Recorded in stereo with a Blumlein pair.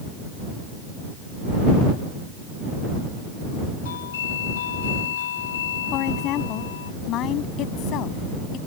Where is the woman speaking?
35° left.